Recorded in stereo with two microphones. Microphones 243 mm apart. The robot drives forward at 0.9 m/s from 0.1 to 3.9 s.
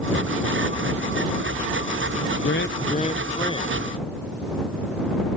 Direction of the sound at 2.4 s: 55° left (ahead or behind).